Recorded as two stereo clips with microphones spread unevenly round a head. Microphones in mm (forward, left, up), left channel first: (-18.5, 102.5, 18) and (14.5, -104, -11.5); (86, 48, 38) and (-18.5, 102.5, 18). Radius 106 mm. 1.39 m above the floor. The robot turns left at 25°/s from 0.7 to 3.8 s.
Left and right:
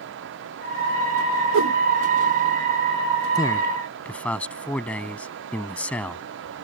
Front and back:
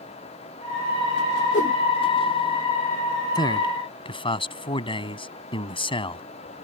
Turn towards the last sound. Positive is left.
turn(degrees=15)